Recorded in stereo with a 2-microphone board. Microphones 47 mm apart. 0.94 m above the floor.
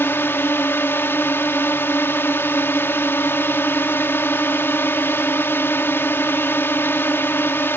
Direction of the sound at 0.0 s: 60° left (ahead or behind).